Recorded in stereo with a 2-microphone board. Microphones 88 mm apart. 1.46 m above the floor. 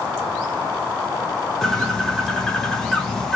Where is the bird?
5° left (ahead or behind), 1.0 m.